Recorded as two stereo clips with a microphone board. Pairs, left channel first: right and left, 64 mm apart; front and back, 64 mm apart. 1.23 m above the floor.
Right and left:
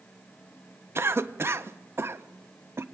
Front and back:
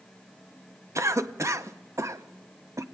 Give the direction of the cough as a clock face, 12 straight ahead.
7 o'clock.